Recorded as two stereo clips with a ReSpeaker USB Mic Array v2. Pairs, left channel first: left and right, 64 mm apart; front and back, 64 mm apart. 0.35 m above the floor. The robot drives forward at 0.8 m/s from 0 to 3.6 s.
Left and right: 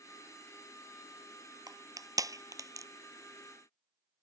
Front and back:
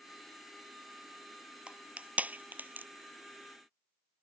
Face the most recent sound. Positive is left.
turn(degrees=-125)